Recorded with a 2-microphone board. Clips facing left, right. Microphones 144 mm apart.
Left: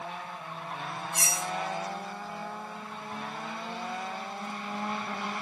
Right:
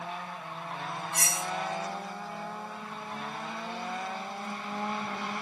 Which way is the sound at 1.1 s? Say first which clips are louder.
Left 1 dB; 65° right (ahead or behind).